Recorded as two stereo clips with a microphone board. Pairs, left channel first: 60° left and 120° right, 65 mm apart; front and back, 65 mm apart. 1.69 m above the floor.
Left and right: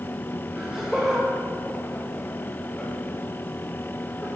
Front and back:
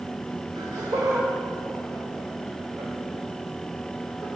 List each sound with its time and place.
0.6 s laughter: 175° left, 0.9 m; by 4.3 s 125° left, 3 m